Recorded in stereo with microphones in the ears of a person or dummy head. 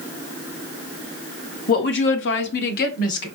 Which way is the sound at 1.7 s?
40° left (ahead or behind).